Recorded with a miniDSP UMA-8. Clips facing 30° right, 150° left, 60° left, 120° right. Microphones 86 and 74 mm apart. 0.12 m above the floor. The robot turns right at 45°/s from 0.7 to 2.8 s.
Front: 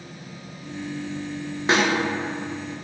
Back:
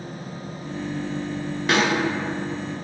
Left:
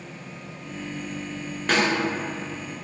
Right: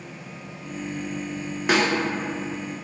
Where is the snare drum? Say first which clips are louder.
Even, right 1 dB; 55° right, 0.6 m; by 1.9 s 45° right, 0.6 m.